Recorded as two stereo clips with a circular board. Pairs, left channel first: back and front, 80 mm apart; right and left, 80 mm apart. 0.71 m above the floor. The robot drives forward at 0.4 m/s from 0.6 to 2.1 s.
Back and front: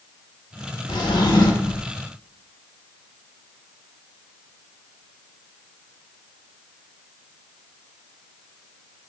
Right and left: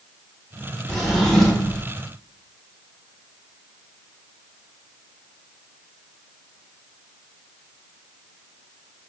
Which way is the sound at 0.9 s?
175° right.